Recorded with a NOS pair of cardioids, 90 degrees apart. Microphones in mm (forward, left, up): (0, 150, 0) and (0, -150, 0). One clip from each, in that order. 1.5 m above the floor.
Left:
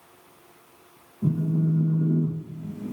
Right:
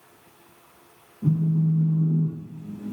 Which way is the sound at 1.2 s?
25° left.